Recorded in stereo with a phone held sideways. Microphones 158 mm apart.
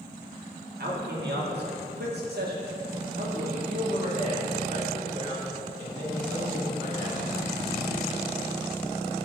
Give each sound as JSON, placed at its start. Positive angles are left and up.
{"t": 0.8, "sound": "a man speaking", "side_deg": -75, "distance_m": 1.7}